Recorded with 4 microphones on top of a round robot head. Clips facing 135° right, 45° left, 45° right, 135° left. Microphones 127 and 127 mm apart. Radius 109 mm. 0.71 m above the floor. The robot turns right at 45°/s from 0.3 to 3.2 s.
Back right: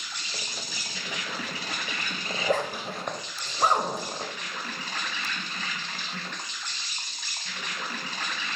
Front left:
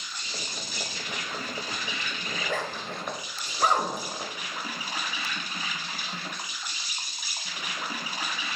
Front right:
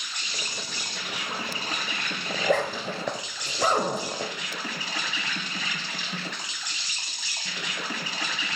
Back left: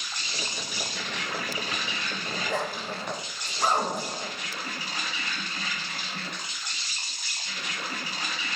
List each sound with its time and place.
0.0 s an insect: 165° right, 1.1 m; by 8.6 s 35° right, 1.1 m
2.3 s a zipper: 95° right, 0.7 m; by 4.4 s 50° right, 0.7 m